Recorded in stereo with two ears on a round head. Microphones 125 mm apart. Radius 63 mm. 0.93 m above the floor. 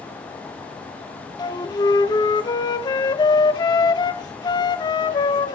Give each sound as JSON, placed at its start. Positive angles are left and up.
{"t": 1.4, "sound": "a flute", "side_deg": 30, "distance_m": 1.2}